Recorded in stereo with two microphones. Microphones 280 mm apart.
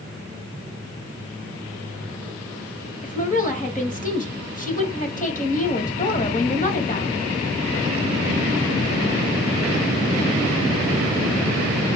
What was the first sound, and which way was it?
A woman speaking, 30° left (ahead or behind).